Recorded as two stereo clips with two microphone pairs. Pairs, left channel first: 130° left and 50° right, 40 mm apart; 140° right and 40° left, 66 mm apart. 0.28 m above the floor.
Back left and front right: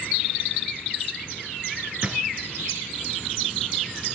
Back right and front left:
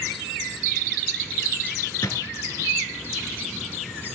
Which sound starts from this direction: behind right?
A drawer, at 2.0 s.